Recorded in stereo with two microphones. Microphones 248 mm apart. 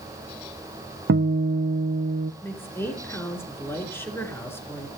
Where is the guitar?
55° right (ahead or behind), 0.6 m.